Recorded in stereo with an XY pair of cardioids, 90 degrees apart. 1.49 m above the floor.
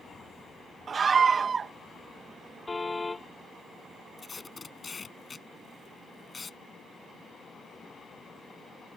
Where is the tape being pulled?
35° left.